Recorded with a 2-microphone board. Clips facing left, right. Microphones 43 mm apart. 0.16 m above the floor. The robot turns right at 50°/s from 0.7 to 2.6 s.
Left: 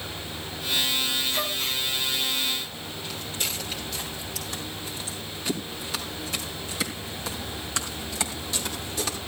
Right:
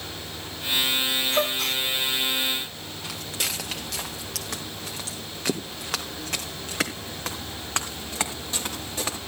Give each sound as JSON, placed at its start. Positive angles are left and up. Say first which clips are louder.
{"t": 1.3, "sound": "a gasp", "louder": "right 4 dB", "side_deg": -60, "distance_m": 2.0}
{"t": 3.0, "sound": "footsteps", "louder": "right 2 dB", "side_deg": -80, "distance_m": 4.0}